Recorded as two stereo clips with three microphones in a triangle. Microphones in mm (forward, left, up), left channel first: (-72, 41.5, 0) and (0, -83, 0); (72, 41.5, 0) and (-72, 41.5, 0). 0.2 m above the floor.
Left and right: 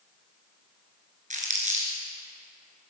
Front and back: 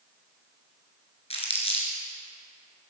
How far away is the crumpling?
About 3 m.